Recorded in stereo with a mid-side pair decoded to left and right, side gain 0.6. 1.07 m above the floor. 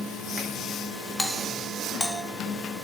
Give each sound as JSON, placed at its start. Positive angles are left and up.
{"t": 1.2, "sound": "a doorbell", "azimuth_deg": 15, "distance_m": 1.9}